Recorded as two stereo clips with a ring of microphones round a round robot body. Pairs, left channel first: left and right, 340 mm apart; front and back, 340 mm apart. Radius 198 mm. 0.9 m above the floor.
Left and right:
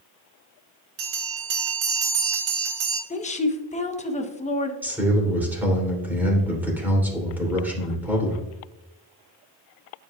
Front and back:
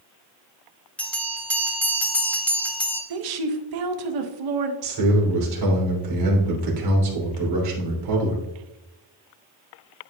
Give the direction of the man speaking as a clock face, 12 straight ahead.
6 o'clock.